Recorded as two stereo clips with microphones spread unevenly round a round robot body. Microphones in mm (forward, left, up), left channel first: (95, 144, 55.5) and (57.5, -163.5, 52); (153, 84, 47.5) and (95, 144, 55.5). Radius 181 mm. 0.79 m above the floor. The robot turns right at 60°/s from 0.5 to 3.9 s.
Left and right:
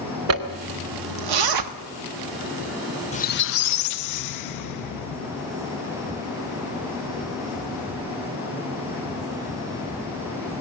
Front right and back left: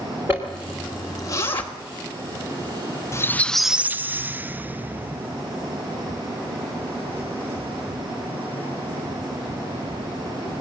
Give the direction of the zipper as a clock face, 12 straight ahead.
5 o'clock.